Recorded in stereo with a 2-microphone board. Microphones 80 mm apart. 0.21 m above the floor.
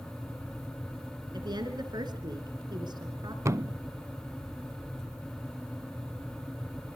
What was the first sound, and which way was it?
A woman speaking, 65° right (ahead or behind).